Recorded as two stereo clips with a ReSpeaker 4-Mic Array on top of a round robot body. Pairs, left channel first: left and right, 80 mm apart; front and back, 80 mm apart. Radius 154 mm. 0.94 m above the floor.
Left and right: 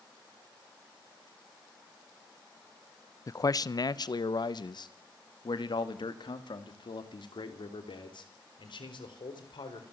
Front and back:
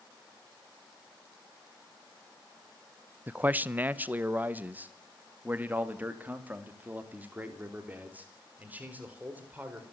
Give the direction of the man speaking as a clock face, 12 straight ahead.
8 o'clock.